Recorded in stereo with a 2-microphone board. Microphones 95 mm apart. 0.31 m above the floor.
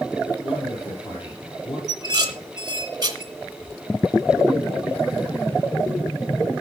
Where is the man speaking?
50° left (ahead or behind), 6.5 m.